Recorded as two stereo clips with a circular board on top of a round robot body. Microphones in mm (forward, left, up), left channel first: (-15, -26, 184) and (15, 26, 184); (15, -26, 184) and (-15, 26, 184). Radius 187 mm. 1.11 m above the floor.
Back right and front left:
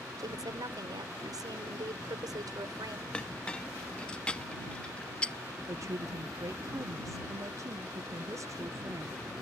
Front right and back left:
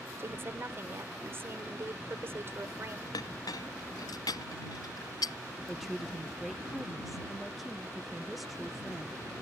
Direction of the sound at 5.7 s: 30° left.